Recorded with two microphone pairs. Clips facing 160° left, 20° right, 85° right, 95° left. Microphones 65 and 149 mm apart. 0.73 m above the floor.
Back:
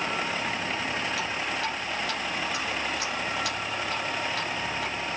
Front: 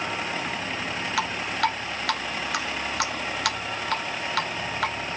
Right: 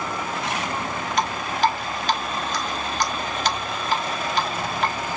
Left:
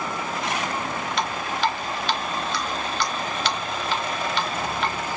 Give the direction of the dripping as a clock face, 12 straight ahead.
1 o'clock.